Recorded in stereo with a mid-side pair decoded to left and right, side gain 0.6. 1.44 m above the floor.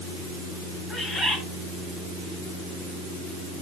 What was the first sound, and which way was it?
A bird, 35° left.